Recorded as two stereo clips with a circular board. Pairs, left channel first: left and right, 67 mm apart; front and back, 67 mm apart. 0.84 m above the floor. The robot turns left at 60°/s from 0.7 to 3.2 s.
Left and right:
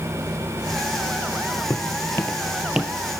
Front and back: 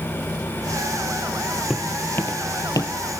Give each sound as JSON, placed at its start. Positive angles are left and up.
{"t": 1.7, "sound": "footsteps", "azimuth_deg": 95, "distance_m": 1.1}